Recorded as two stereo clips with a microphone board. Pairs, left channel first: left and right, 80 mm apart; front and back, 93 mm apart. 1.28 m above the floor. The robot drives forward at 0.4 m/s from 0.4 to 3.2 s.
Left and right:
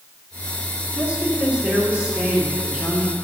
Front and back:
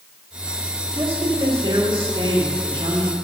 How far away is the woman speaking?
About 1.5 m.